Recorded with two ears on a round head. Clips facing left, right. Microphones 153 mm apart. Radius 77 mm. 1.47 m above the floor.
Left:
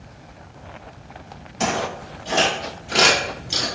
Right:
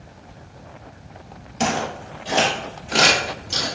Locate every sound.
1.6 s footsteps: 35° right (ahead or behind), 1.8 m; by 3.6 s 10° left (ahead or behind), 1.5 m